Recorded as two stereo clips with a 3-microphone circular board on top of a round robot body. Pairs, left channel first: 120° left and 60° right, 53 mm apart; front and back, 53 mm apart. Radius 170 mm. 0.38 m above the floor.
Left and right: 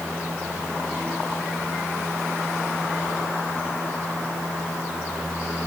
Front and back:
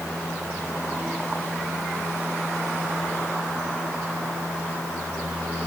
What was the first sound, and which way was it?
Only background noise.